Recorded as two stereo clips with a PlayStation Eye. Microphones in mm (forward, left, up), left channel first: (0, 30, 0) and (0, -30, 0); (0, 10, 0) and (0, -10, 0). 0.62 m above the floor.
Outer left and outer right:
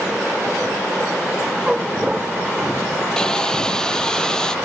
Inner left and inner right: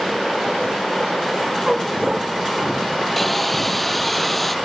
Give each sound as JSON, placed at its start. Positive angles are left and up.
{"t": 1.7, "sound": "a dog barking", "side_deg": -15}
{"t": 3.2, "sound": "sawing", "side_deg": 10}